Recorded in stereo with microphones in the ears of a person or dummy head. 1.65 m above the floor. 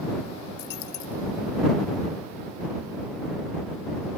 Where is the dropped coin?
50° left (ahead or behind).